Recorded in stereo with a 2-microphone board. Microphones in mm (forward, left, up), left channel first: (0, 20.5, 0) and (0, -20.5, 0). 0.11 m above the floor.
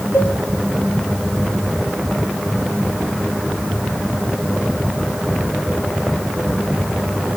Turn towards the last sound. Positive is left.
turn(degrees=55)  # may be behind; listen again after turning